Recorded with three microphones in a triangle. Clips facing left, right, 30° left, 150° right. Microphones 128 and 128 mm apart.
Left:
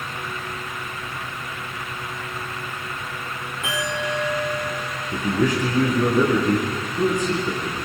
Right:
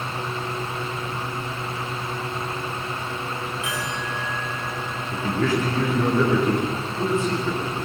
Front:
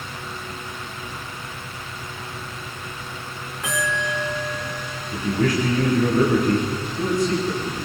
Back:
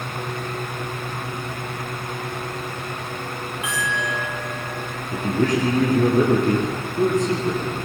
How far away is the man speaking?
About 8.5 m.